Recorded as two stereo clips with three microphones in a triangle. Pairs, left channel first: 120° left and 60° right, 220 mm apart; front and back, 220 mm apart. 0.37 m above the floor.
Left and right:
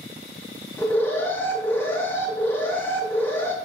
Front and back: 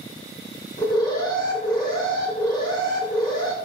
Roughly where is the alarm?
Ahead left.